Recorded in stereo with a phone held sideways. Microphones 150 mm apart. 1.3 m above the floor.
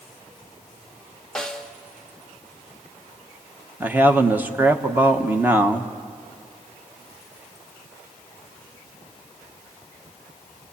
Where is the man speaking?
15° right (ahead or behind), 1.2 m.